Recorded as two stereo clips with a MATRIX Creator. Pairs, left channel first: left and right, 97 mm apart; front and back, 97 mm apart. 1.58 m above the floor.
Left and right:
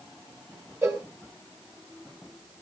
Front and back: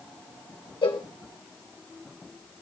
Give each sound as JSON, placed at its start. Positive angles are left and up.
{"t": 0.8, "sound": "a cowbell", "azimuth_deg": -30, "distance_m": 1.2}